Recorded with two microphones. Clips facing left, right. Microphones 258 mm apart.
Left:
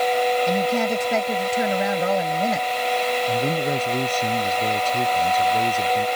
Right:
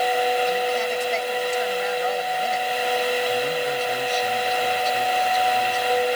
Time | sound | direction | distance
0.5 | a woman speaking | 70° left (ahead or behind) | ?
3.3 | a man speaking | 55° left (ahead or behind) | ?